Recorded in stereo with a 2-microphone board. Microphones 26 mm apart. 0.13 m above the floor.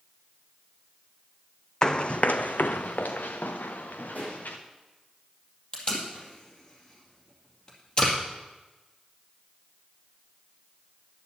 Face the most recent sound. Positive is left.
turn(degrees=35)  # may be behind; listen again after turning